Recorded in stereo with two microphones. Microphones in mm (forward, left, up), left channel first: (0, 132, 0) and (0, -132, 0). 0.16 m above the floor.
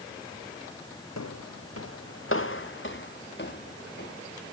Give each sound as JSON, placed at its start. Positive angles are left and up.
{"t": 1.2, "sound": "footsteps", "side_deg": 75, "distance_m": 0.6}